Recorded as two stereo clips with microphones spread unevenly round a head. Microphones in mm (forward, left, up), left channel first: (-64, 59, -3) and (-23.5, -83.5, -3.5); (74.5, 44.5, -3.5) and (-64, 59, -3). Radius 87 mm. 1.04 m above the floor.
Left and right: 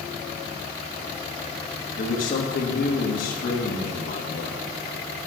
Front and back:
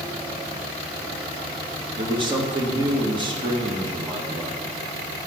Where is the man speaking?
125° left, 1.5 m.